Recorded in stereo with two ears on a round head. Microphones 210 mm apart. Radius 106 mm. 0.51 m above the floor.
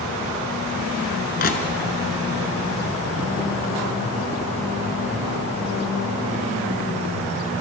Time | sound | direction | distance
1.4 | crushing | 40° left (ahead or behind) | 2 m